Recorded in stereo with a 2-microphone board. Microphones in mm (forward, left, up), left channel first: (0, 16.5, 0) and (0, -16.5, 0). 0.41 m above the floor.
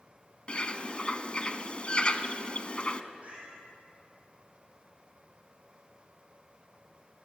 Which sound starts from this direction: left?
A bird, at 0.5 s.